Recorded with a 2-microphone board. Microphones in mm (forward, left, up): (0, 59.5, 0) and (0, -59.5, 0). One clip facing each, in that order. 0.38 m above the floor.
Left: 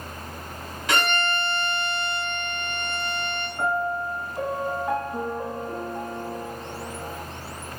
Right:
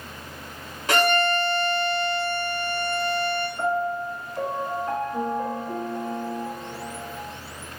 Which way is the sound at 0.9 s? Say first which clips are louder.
Right 4 dB; 35° right (ahead or behind).